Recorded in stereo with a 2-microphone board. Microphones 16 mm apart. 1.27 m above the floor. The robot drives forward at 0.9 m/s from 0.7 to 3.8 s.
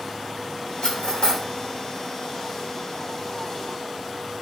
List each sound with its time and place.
0.8 s cutlery clinking: 70° left (ahead or behind), 2.5 m; by 1.4 s 75° left (ahead or behind), 2 m